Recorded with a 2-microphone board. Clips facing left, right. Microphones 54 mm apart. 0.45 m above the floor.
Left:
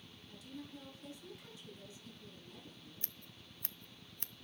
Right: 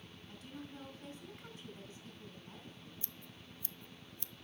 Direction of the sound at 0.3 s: 45° right (ahead or behind).